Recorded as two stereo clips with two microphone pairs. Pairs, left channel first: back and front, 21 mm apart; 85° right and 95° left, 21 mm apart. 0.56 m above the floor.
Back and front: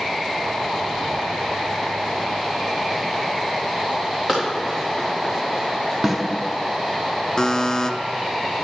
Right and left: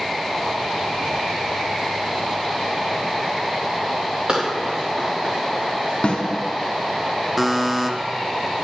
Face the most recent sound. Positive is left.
turn(degrees=165)